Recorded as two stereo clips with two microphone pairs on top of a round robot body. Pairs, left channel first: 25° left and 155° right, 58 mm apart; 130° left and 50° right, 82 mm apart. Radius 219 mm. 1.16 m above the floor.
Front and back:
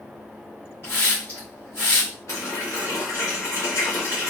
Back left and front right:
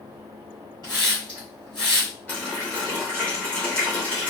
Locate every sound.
0.8 s a hiss: 25° right, 0.8 m
2.3 s a running tap: 55° left, 0.8 m